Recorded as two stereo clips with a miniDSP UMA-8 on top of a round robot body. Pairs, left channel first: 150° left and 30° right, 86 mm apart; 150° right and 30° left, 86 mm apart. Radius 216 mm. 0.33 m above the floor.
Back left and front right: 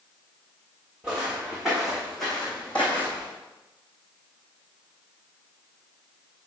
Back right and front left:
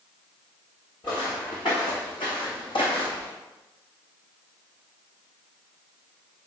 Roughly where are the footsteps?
Right.